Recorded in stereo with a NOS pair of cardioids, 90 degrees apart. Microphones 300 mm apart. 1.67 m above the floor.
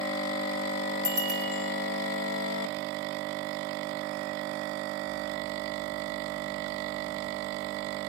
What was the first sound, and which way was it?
A bicycle bell, 60° right.